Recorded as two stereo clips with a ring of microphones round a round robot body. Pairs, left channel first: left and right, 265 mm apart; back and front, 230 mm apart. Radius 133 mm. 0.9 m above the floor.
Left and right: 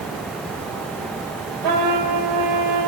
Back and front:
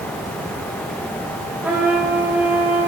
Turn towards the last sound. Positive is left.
turn(degrees=-85)